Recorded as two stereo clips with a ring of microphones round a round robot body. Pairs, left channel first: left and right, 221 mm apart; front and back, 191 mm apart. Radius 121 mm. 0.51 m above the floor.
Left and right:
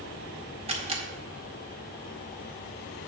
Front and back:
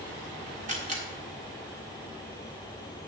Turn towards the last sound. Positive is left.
turn(degrees=-145)